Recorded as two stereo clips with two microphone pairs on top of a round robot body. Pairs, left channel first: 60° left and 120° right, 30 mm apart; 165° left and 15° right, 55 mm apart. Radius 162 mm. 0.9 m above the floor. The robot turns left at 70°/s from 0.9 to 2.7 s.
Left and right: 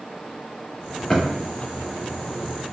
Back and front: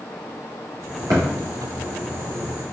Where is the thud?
20° right, 1.0 m; by 1.2 s 30° right, 1.0 m.